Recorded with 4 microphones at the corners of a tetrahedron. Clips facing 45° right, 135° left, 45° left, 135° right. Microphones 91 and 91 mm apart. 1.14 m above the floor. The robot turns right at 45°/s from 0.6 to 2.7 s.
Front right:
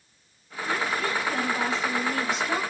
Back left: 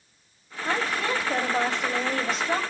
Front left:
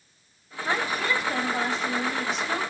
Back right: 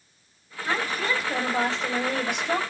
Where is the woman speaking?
110° left, 5 m; by 2.6 s 160° right, 5 m.